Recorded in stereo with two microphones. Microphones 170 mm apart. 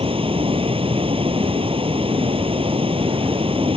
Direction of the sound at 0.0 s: 35° right (ahead or behind).